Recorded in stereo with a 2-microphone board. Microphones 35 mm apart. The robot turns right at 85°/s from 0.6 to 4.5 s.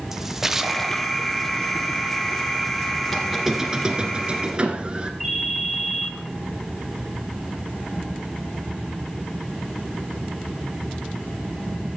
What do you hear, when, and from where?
0.1 s a splash: 10° right, 0.7 m; by 1.2 s 40° left, 0.7 m
3.1 s a squeak: 170° left, 1.5 m; by 5.1 s 70° right, 1.5 m
5.2 s a ringtone: 5° right (ahead or behind), 8 m